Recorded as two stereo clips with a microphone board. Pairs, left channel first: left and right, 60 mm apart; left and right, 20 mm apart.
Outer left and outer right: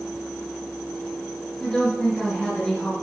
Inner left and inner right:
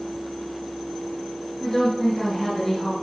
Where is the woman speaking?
15° left (ahead or behind), 6.5 m.